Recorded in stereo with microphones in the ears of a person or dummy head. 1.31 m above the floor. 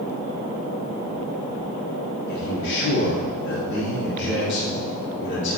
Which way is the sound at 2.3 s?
70° left (ahead or behind).